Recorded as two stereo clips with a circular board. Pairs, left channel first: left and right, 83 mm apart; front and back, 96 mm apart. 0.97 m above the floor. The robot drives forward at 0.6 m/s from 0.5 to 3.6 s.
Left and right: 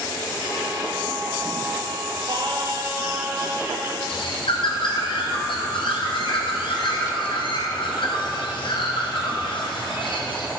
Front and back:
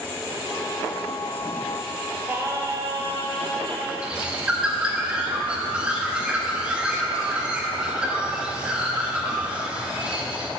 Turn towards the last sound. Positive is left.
turn(degrees=100)